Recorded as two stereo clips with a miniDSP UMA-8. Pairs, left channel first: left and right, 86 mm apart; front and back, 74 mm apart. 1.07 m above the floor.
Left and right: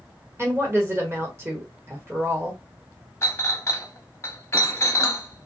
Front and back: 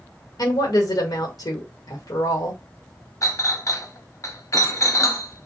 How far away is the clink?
About 0.6 m.